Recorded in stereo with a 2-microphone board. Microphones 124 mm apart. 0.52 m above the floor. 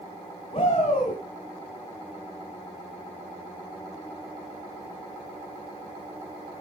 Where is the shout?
50° left (ahead or behind), 3 m.